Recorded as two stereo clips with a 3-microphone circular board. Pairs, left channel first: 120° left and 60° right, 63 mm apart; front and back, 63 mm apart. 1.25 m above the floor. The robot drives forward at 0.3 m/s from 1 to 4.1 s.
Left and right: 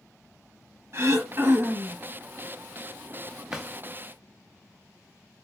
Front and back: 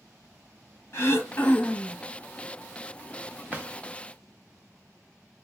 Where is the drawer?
135° right, 0.6 m; by 3.7 s 140° right, 0.6 m.